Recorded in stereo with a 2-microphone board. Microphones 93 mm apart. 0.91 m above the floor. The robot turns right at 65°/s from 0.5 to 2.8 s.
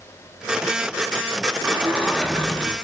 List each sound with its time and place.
1.6 s a sliding door: 15° right (ahead or behind), 0.7 m; by 2.8 s 5° left (ahead or behind), 0.7 m